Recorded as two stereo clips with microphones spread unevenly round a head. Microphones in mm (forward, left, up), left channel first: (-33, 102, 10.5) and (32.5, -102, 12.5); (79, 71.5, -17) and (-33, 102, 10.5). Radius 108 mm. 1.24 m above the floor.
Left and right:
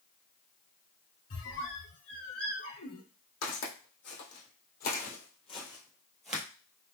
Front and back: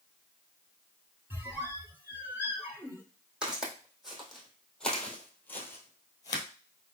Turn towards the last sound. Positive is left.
turn(degrees=-5)